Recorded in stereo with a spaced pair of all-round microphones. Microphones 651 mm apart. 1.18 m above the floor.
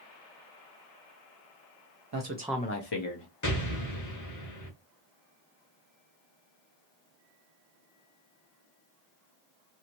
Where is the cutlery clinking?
I don't hear cutlery clinking.